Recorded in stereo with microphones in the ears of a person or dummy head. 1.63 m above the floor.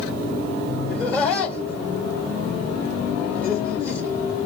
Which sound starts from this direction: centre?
Laughter, at 0.9 s.